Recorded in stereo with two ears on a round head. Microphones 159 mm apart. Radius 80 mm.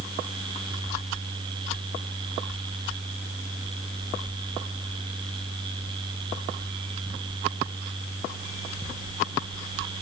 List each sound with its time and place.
Only background noise.